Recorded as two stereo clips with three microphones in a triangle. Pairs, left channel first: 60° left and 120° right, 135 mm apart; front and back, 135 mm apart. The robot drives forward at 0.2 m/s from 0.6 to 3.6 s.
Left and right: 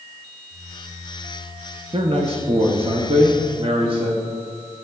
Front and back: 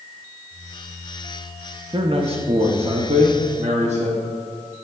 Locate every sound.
1.9 s a man speaking: 150° right, 0.6 m; by 4.2 s 160° right, 0.8 m